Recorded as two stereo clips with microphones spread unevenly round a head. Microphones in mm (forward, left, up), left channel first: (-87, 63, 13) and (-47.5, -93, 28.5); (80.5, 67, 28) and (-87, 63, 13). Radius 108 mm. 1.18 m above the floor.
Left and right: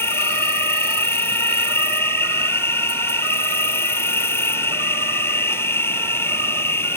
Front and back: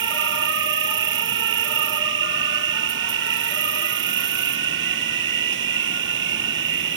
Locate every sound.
0.0 s an insect: straight behind